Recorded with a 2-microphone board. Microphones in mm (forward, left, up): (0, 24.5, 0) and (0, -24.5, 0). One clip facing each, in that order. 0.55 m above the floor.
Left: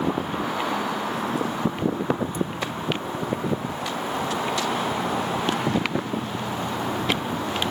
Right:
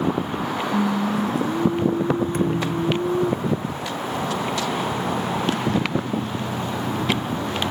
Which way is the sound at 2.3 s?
60° right (ahead or behind).